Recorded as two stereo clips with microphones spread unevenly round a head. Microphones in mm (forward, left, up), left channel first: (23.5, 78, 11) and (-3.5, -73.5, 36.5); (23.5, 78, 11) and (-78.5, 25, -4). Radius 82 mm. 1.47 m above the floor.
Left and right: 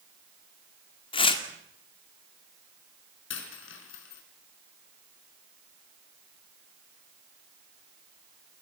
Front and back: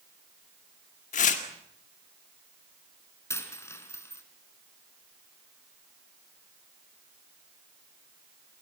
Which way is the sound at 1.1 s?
20° left.